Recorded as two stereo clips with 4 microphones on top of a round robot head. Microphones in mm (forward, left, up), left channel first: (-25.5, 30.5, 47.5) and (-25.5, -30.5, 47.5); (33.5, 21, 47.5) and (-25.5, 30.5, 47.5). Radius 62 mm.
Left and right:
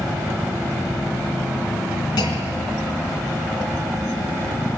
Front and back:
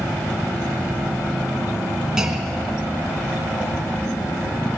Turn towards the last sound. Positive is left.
turn(degrees=90)